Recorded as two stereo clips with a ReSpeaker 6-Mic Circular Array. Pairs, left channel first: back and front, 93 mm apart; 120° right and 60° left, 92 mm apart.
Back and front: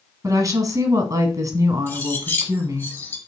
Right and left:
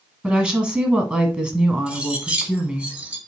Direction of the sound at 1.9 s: 130° left.